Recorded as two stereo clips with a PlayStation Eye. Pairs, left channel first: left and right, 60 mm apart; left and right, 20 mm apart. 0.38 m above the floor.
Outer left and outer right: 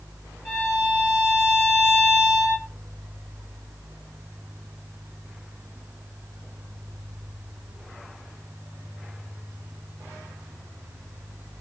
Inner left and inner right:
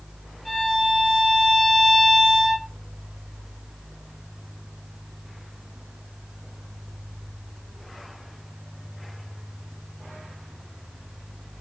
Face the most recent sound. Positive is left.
turn(degrees=35)  # may be behind; listen again after turning